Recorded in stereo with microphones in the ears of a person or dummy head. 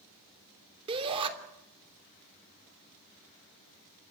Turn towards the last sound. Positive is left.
turn(degrees=-25)  # may be behind; listen again after turning